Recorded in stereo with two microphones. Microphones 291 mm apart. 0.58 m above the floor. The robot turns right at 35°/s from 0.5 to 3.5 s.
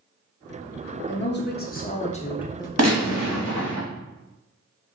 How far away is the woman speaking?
About 0.7 m.